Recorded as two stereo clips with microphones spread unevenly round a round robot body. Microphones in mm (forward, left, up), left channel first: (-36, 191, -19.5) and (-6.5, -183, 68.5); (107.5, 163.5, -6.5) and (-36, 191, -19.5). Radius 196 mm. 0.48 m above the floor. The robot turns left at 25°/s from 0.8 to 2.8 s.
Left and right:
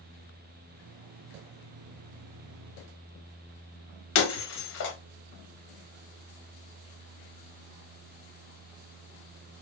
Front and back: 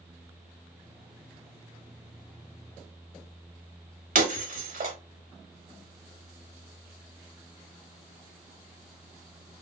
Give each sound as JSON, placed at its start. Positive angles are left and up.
{"t": 4.2, "sound": "breaking glass", "azimuth_deg": 145, "distance_m": 0.7}